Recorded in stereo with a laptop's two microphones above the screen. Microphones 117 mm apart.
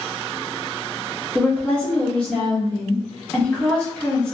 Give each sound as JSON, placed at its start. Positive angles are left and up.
{"t": 1.4, "sound": "a woman speaking", "side_deg": 10, "distance_m": 1.3}